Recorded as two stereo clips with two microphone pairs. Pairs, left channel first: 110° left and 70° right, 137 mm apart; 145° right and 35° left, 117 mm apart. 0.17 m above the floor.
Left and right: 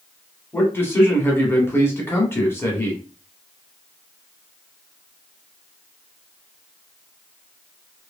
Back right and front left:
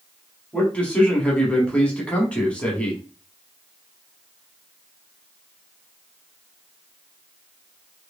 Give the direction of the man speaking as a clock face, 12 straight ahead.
7 o'clock.